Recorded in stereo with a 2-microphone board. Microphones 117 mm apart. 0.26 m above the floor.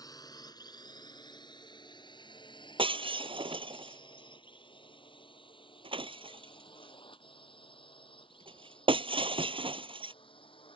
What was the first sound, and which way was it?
A drone, 30° left (ahead or behind).